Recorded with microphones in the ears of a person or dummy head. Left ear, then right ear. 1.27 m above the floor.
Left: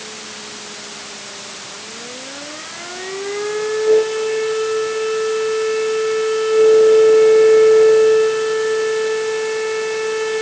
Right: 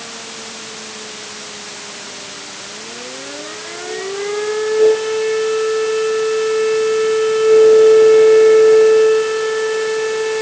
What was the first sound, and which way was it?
Only background noise.